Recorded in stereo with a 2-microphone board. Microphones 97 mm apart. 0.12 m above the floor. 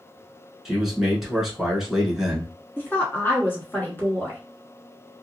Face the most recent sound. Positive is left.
turn(degrees=20)  # may be behind; listen again after turning